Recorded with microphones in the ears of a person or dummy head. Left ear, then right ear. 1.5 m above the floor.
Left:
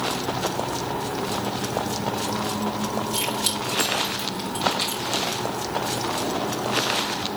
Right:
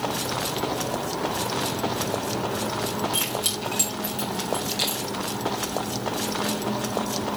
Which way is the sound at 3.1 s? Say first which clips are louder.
Left 1 dB; 45° right (ahead or behind).